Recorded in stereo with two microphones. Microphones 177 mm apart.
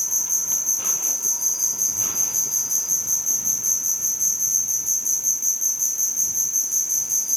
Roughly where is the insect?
Centre.